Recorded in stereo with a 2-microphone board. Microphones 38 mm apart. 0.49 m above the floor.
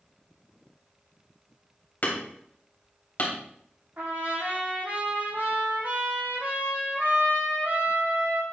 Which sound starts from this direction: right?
A trumpet, at 4.0 s.